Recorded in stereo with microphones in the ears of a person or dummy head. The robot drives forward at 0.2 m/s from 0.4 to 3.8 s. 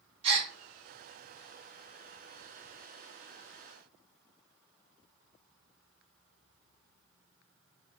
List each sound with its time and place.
0.2 s a gasp: 35° right (ahead or behind), 1.2 m